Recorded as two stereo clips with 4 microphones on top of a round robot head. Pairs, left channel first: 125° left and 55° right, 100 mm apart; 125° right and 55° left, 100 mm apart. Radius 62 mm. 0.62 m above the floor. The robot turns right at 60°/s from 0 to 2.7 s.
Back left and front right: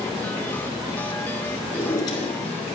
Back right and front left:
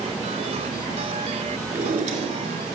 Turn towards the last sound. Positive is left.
turn(degrees=105)